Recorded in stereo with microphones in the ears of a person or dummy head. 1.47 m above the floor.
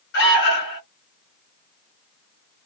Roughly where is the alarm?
Left.